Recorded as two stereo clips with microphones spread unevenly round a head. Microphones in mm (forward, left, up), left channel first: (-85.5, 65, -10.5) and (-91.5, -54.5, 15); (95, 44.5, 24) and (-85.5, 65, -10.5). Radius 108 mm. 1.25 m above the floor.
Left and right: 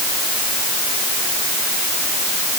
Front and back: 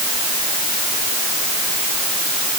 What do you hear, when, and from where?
Only background noise.